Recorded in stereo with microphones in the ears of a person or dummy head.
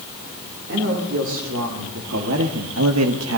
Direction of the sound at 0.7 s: 65° right (ahead or behind).